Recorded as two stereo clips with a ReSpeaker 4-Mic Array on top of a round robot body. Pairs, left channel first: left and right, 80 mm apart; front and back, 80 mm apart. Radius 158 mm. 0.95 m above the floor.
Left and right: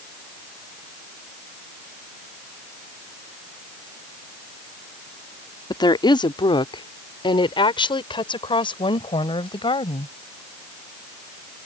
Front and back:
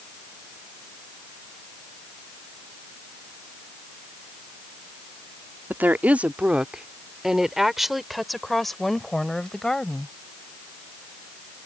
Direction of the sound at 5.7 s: 115° left.